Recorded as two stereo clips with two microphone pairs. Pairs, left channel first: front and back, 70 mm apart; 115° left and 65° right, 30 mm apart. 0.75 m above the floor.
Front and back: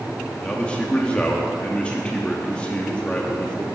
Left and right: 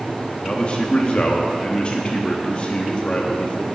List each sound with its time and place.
0.4 s a man speaking: 70° left, 1.0 m